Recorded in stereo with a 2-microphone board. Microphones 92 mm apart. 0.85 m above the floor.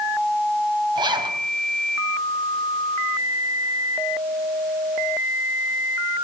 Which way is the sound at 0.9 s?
55° right (ahead or behind).